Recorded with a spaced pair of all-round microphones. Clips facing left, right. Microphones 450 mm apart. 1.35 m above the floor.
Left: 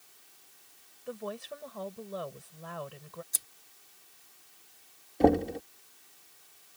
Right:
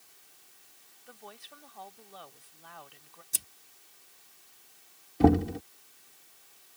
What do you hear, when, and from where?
1.1 s a woman speaking: 85° left
3.3 s scissors: 50° right (ahead or behind)
5.2 s knocking: 25° right (ahead or behind)